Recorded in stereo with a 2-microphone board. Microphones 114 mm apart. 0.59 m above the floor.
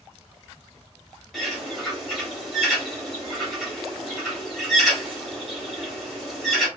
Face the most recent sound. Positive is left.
turn(degrees=0)  # may be behind; listen again after turning